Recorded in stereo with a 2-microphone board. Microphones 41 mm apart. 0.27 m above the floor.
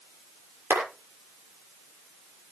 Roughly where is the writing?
No writing in this recording.